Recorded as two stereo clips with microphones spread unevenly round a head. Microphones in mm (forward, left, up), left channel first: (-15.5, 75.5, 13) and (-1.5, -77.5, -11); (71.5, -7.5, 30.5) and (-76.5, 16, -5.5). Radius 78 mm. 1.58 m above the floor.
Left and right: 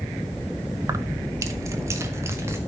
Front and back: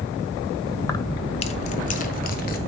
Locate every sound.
0.8 s keys jangling: 15° right, 0.8 m; by 2.6 s 5° right, 1.7 m